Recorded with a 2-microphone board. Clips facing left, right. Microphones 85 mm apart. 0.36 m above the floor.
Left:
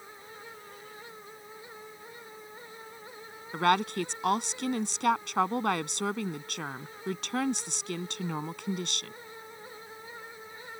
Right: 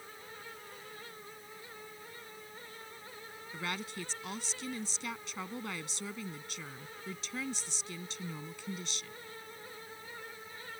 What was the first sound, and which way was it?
A woman speaking, 75° left (ahead or behind).